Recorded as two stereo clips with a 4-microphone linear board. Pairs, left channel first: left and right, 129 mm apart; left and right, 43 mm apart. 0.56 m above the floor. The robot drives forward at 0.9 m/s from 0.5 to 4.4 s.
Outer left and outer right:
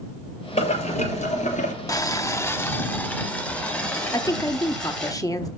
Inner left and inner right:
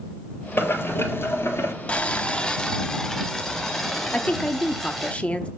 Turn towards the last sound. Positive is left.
turn(degrees=25)  # may be behind; listen again after turning